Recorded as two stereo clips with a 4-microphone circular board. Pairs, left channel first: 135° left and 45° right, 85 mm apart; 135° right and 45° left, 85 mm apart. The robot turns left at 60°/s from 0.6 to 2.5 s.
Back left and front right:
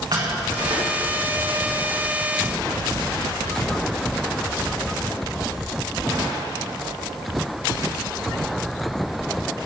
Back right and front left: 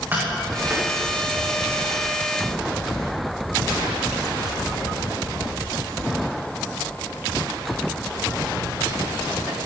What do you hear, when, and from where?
0.1 s tapping: 20° right, 7 m; by 0.9 s 40° right, 7 m